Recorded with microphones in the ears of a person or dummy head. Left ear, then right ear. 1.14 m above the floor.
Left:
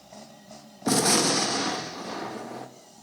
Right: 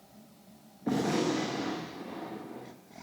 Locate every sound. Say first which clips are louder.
0.9 s a gunshot: left 7 dB; 70° left (ahead or behind), 0.7 m